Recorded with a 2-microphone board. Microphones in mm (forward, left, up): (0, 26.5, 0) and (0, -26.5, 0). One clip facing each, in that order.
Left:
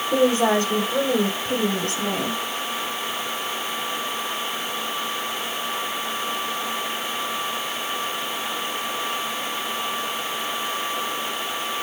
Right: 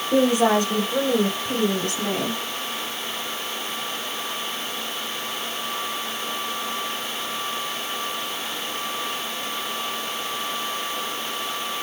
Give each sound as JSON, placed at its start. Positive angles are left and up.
{"t": 0.1, "sound": "a woman speaking", "side_deg": -20, "distance_m": 4.5}